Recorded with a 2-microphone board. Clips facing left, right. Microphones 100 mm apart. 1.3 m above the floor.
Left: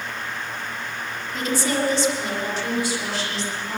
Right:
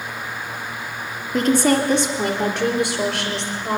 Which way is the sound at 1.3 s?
55° right (ahead or behind).